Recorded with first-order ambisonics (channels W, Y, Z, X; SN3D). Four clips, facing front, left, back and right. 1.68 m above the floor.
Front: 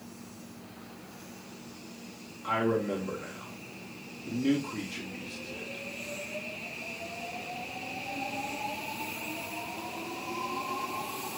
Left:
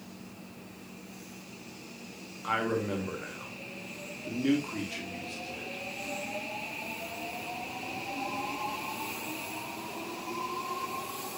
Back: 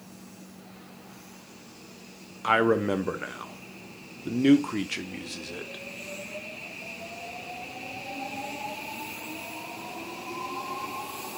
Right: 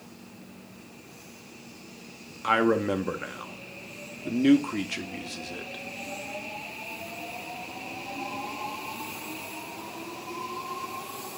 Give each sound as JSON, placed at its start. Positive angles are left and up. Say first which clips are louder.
{"t": 2.4, "sound": "a man speaking", "louder": "right 7 dB, back 6 dB", "azimuth_deg": -145, "distance_m": 0.7}